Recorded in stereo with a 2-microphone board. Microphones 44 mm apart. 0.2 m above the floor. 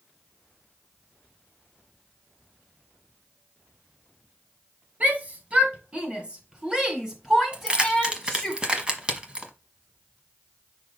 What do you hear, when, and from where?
5.0 s a shout: 35° right (ahead or behind), 1.9 m; by 8.5 s 5° left (ahead or behind), 1.8 m
7.5 s keys jangling: 20° right (ahead or behind), 1.1 m